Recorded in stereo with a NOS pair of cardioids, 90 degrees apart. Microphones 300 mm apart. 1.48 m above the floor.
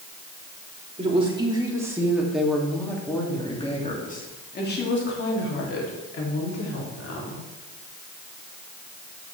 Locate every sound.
1.0 s a woman speaking: 20° right, 3 m; by 7.4 s 60° left, 3.5 m